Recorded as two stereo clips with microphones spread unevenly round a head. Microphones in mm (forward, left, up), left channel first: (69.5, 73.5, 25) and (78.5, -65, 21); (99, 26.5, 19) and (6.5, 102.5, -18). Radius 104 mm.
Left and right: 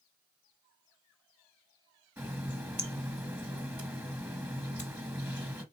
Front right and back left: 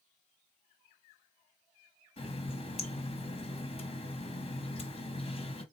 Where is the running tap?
10° right, 1.4 m.